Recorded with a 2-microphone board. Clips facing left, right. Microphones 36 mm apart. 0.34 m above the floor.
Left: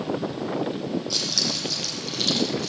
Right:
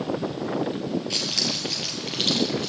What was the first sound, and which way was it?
Keys jangling, 45° right (ahead or behind).